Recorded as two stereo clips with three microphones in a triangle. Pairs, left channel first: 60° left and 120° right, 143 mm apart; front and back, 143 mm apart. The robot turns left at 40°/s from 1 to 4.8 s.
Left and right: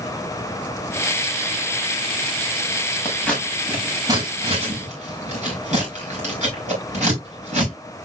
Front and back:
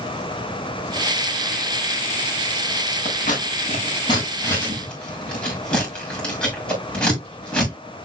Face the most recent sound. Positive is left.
turn(degrees=-80)